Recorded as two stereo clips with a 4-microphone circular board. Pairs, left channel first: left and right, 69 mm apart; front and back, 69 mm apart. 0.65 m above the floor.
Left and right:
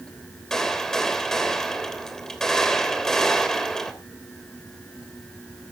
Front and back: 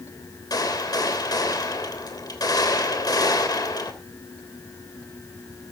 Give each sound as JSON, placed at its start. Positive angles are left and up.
{"t": 0.5, "sound": "a gunshot", "azimuth_deg": 10, "distance_m": 3.0}